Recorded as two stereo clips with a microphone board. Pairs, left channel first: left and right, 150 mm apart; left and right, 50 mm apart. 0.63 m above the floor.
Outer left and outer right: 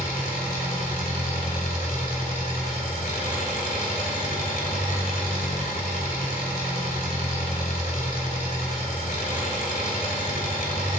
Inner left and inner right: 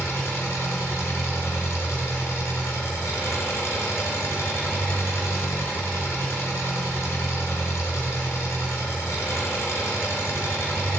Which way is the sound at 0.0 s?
75° left (ahead or behind).